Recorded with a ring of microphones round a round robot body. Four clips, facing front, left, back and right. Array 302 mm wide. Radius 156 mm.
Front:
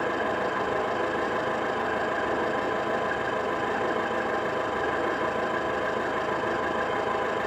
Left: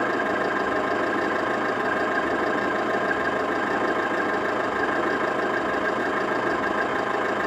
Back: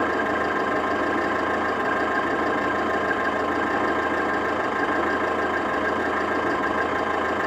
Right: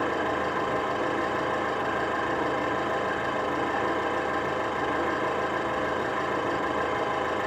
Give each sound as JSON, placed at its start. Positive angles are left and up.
{"t": 0.0, "sound": "an engine running", "azimuth_deg": 150, "distance_m": 3.5}